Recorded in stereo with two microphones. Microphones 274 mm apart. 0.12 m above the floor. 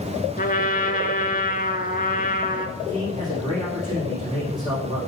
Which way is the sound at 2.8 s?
15° right (ahead or behind).